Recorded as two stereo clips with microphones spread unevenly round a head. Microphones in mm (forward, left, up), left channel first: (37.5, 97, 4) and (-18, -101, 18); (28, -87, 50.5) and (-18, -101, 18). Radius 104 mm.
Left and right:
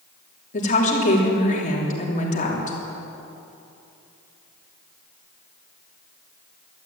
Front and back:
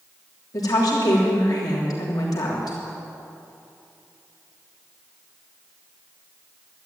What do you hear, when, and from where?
0.5 s a woman speaking: 20° left, 3 m